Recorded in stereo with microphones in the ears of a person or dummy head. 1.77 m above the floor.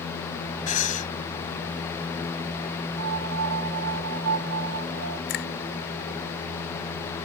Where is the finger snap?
55° left (ahead or behind).